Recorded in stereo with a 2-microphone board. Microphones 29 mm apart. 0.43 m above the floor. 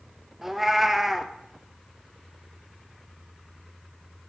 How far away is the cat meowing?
About 0.9 m.